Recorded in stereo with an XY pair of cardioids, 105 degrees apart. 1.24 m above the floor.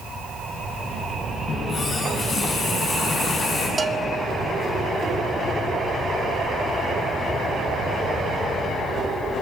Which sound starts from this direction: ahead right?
A bell, at 3.8 s.